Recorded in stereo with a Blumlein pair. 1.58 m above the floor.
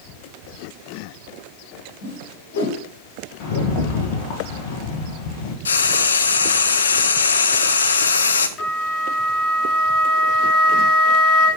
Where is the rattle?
45° left, 1.7 m.